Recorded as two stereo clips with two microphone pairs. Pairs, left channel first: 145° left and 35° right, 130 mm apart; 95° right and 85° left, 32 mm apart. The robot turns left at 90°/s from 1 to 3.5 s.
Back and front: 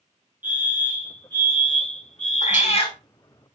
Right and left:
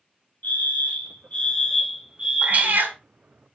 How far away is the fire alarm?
About 4 m.